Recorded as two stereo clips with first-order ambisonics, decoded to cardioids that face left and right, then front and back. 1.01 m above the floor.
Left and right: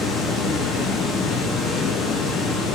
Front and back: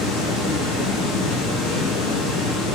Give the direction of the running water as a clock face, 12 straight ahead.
11 o'clock.